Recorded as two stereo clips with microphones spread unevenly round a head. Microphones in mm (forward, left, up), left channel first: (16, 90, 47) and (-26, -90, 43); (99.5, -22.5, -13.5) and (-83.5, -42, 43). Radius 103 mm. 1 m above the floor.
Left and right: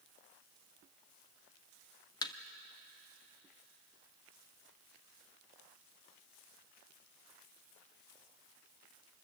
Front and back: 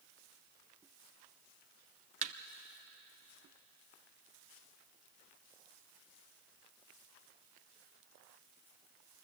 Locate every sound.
2.2 s a thud: 145° left, 0.7 m